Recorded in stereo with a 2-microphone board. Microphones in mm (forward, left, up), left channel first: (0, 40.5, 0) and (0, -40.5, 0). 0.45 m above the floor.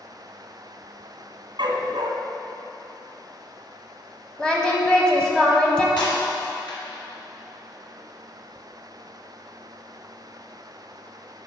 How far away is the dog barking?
About 1.1 m.